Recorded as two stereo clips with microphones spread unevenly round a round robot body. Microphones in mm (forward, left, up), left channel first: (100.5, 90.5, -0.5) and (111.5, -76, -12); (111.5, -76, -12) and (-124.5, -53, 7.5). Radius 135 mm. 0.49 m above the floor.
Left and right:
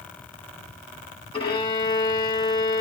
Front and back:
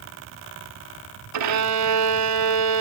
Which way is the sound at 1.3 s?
165° left.